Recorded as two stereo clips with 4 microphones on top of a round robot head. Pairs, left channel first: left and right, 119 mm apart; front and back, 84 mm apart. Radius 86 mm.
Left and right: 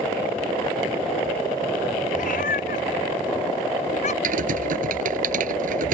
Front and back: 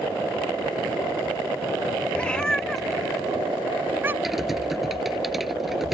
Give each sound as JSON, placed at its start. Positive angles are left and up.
{"t": 2.1, "sound": "a cat meowing", "azimuth_deg": 75}
{"t": 4.2, "sound": "typing on a keyboard", "azimuth_deg": -95}